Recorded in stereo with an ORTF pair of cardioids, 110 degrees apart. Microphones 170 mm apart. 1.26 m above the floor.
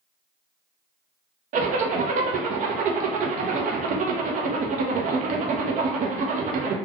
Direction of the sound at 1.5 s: 50° right.